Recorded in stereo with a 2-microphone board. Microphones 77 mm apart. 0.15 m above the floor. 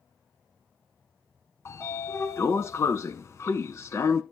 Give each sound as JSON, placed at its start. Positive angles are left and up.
{"t": 1.6, "sound": "a sliding door", "side_deg": 35, "distance_m": 0.6}